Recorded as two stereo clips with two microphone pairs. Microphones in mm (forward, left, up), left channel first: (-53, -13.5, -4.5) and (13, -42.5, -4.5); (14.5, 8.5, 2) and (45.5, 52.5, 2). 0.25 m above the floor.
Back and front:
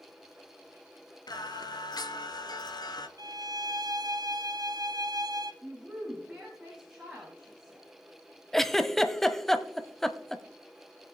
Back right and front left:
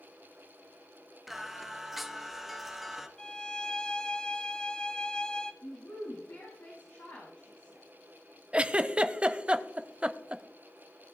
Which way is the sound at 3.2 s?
50° right.